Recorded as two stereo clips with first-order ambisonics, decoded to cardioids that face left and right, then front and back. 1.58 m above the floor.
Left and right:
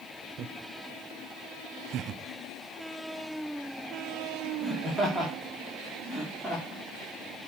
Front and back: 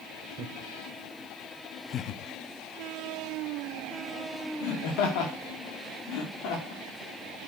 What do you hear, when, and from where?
0.4 s laughter: 125° right, 0.9 m; by 7.5 s 10° left, 3 m